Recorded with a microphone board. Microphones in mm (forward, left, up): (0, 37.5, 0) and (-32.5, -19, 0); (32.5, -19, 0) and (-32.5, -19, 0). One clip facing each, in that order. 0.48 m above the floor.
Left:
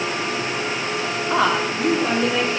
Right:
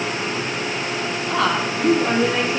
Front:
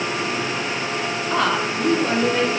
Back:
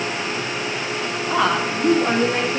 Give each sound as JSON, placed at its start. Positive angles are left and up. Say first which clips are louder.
{"t": 1.3, "sound": "a woman speaking", "louder": "left 1 dB, back 2 dB", "azimuth_deg": 100, "distance_m": 1.1}